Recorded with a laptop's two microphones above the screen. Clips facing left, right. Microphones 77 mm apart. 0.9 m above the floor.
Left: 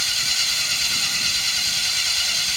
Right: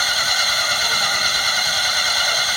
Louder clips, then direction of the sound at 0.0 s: Right 9 dB; 55° right (ahead or behind).